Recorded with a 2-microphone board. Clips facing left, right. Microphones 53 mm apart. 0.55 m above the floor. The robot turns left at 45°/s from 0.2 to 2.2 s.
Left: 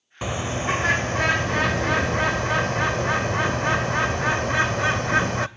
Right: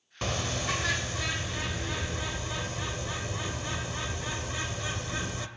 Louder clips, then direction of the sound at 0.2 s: Left 6 dB; 165° left.